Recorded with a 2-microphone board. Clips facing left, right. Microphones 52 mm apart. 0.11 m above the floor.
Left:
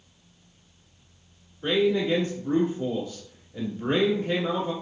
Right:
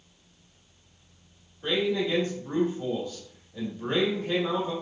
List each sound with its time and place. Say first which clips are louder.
1.6 s a man speaking: left 4 dB; 20° left (ahead or behind), 1.0 m